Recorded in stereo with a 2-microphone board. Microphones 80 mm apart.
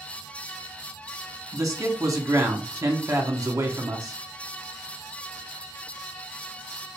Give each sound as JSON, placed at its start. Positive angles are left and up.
{"t": 1.5, "sound": "a man speaking", "side_deg": -40, "distance_m": 1.0}